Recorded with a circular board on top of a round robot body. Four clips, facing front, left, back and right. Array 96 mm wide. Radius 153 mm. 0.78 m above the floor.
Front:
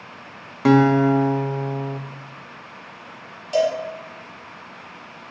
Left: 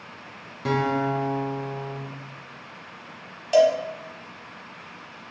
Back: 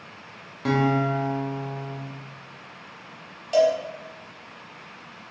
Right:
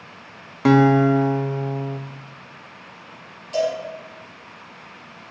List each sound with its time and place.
0.7 s a guitar: 50° right, 0.6 m
3.5 s a cowbell: 100° left, 0.9 m